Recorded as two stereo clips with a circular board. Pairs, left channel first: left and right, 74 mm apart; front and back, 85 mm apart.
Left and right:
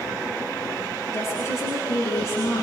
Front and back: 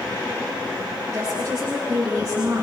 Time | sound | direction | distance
1.1 | a woman speaking | 125° left | 8 m